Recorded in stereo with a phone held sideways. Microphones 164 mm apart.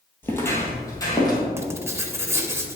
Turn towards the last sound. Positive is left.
turn(degrees=-15)  # may be behind; listen again after turning